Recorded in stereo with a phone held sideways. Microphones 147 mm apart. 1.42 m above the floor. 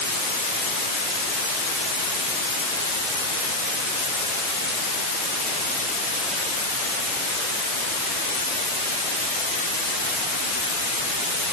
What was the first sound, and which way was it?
Only background noise.